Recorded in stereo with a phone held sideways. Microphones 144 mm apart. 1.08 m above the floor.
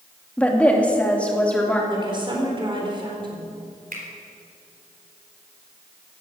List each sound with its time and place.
0.4 s a woman speaking: 10° left (ahead or behind), 2 m
1.9 s a woman speaking: 35° right (ahead or behind), 4 m
3.9 s a finger snap: 75° right (ahead or behind), 3.5 m